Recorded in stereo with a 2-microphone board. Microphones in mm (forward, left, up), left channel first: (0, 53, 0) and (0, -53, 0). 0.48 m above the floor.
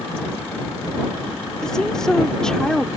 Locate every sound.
1.6 s a woman speaking: 5° left (ahead or behind)